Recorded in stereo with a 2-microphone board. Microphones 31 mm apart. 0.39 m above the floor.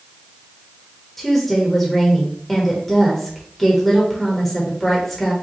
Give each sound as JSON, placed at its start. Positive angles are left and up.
{"t": 1.2, "sound": "a woman speaking", "side_deg": 10, "distance_m": 0.9}